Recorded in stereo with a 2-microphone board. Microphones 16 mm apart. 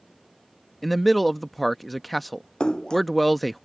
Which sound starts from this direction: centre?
A man speaking, at 0.8 s.